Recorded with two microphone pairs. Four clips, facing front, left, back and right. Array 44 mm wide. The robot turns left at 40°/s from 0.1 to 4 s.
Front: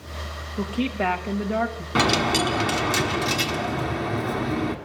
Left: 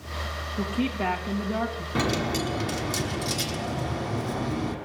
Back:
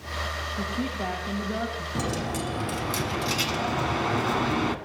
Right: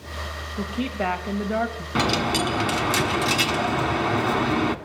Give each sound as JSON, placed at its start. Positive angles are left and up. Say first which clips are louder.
{"t": 0.6, "sound": "a woman speaking", "louder": "right 1 dB, front 8 dB", "azimuth_deg": -25, "distance_m": 2.5}
{"t": 1.9, "sound": "a dropped coin", "louder": "right 4 dB, front 11 dB", "azimuth_deg": -25, "distance_m": 1.2}